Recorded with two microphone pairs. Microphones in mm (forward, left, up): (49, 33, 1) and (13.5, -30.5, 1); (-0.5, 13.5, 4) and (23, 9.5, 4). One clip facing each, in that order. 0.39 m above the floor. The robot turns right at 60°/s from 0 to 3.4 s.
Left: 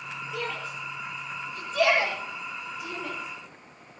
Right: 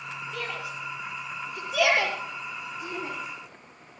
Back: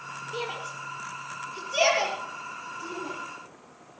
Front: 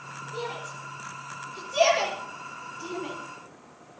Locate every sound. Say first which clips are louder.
0.3 s a shout: left 2 dB, back 1 dB; 145° left, 8.5 m; by 3.1 s 45° right, 8.5 m